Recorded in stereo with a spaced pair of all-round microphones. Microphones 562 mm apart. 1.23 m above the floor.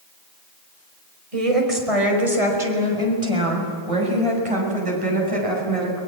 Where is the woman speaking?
85° right, 5 m; by 6.0 s 70° right (ahead or behind), 8 m.